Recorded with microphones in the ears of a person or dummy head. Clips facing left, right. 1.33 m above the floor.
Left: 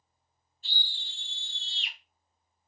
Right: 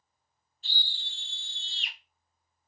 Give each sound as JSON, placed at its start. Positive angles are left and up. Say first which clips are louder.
{"t": 0.6, "sound": "a scream", "louder": "right 1 dB", "side_deg": -55, "distance_m": 2.0}